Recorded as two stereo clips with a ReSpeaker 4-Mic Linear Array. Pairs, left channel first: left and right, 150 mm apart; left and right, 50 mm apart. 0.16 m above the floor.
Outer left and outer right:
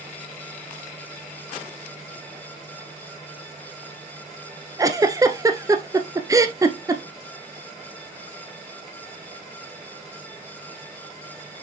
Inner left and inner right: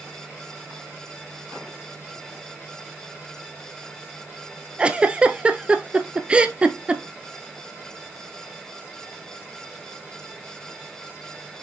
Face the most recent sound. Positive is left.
turn(degrees=-20)  # may be behind; listen again after turning